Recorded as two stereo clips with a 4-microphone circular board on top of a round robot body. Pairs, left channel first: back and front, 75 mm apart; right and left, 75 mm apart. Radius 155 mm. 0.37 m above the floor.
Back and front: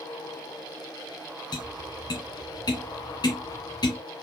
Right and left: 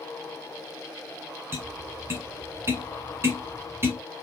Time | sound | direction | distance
1.5 | tapping | 150° left | 1.8 m